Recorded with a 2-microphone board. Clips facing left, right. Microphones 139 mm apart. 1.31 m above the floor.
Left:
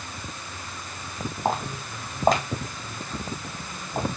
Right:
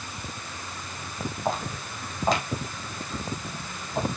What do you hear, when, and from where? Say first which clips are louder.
1.4 s footsteps: left 3 dB; 50° left (ahead or behind), 3 m; by 4.1 s 35° left (ahead or behind), 3.5 m